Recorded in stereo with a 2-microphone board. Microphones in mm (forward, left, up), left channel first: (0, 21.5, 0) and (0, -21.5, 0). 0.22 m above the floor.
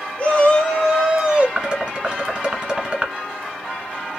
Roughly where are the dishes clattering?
Centre.